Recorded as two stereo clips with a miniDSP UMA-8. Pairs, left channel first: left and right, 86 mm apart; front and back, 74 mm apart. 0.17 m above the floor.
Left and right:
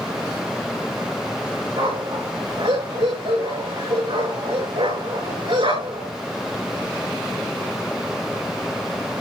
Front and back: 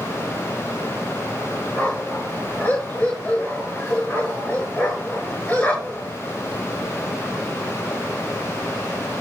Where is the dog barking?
70° right, 7 m.